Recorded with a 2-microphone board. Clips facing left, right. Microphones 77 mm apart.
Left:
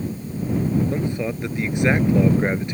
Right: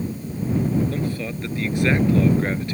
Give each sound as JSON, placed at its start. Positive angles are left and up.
{"t": 0.9, "sound": "a man speaking", "side_deg": 20}